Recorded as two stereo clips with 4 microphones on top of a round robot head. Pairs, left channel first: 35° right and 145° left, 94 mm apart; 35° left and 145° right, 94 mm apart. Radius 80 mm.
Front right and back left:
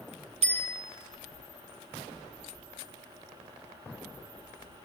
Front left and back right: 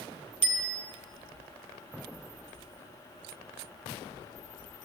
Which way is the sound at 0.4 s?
145° left.